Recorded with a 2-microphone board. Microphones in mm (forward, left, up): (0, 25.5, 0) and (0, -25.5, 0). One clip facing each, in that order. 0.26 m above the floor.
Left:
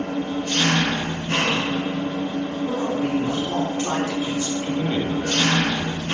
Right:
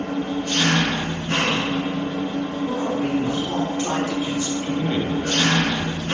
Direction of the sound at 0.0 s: 35° right (ahead or behind).